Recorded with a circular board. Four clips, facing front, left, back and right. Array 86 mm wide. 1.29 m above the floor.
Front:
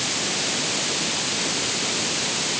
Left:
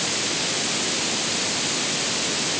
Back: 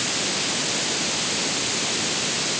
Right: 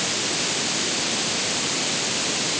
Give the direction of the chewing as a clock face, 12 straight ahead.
I don't hear chewing.